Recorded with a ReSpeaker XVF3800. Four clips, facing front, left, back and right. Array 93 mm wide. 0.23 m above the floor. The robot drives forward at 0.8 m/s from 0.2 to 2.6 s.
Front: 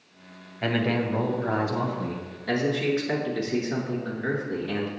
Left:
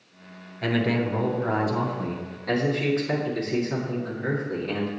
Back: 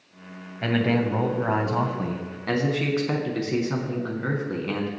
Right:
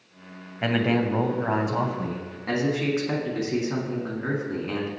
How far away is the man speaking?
About 1.1 m.